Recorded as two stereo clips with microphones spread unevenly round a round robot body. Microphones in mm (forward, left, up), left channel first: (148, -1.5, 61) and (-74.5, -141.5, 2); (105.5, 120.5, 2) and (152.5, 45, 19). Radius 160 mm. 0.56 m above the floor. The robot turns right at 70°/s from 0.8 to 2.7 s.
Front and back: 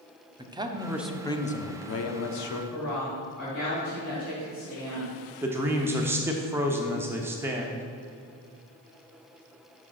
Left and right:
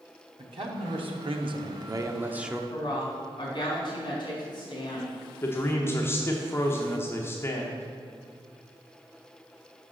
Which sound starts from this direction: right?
A man speaking, at 0.4 s.